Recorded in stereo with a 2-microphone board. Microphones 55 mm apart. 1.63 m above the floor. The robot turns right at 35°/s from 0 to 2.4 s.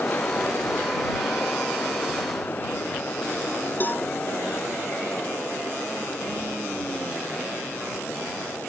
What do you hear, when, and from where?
3.8 s a cowbell: 35° left (ahead or behind)